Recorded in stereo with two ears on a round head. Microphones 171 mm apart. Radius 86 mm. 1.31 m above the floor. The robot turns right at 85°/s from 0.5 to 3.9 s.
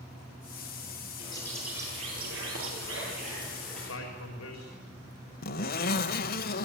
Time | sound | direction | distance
1.2 | a bird | 145° left | 9 m
3.7 | a man speaking | 55° left (ahead or behind) | 4.5 m
5.4 | a zipper | 50° left (ahead or behind) | 1.6 m